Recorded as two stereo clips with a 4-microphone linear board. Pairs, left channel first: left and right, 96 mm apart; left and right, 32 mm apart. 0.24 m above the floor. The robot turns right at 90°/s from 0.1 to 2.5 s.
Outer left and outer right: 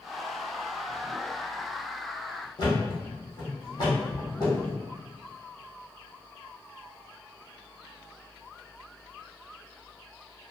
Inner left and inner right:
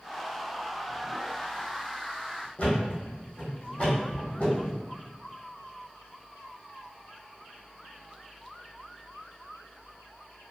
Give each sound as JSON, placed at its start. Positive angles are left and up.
{"t": 2.6, "sound": "a thud", "side_deg": 40, "distance_m": 1.8}